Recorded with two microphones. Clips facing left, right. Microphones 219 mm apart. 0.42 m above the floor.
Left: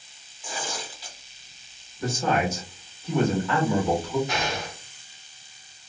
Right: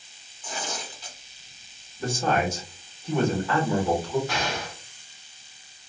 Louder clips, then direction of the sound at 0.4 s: Even; 10° left (ahead or behind).